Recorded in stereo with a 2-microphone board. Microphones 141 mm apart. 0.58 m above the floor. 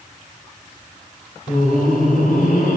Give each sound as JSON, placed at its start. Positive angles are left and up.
{"t": 1.5, "sound": "laughter", "side_deg": 80, "distance_m": 6.0}